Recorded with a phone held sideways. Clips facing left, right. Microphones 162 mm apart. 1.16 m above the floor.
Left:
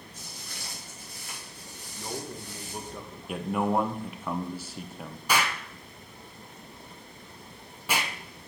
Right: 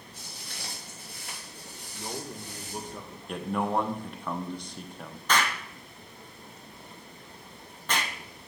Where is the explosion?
10° left (ahead or behind), 0.7 m.